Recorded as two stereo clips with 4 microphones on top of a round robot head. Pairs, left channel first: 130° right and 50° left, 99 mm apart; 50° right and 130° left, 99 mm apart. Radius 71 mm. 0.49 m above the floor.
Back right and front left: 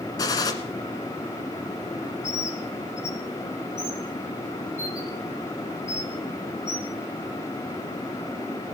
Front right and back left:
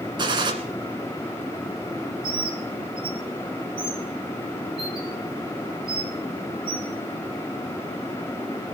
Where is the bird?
170° left, 1.9 m.